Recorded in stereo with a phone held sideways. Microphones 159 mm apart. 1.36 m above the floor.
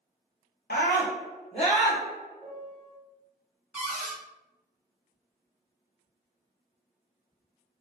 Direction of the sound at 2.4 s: 5° right (ahead or behind).